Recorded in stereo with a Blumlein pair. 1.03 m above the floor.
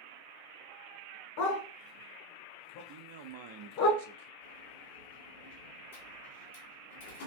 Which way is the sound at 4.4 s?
55° left.